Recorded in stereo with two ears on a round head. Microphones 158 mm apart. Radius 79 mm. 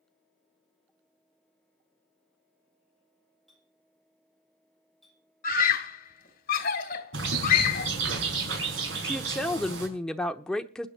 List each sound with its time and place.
3.5 s a clink: centre (ahead or behind), 8.5 m
5.4 s a scream: 50° left (ahead or behind), 2.5 m
7.1 s a bird: 75° right (ahead or behind), 5.5 m
9.0 s a woman speaking: 5° left (ahead or behind), 0.9 m